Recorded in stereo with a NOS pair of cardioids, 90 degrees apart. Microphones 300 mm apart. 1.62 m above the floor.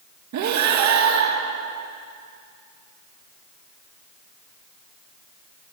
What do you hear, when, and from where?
0.3 s breathing: 70° right, 2 m